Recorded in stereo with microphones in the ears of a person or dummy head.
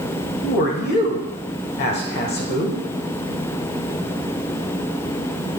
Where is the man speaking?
45° left (ahead or behind), 1.2 m.